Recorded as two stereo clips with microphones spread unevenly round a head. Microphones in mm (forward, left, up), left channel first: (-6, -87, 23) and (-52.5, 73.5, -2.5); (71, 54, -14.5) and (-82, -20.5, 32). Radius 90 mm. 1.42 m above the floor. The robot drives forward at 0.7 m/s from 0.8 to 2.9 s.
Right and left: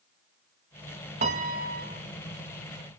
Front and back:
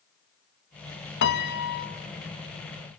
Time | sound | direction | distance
1.2 | a piano | 50° left | 1.7 m